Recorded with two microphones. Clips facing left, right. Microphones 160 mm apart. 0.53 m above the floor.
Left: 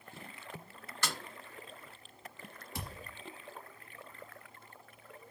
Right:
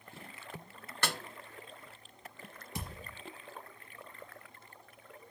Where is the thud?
20° right (ahead or behind), 4 m.